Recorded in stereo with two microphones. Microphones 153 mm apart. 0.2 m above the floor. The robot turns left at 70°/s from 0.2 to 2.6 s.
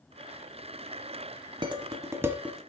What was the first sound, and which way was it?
Dishes clattering, 30° right (ahead or behind).